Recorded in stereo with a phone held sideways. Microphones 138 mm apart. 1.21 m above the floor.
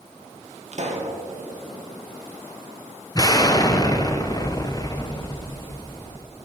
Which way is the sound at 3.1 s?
25° left (ahead or behind).